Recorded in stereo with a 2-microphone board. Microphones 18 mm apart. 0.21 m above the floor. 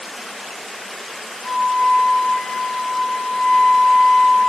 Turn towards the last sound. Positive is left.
turn(degrees=65)  # may be behind; listen again after turning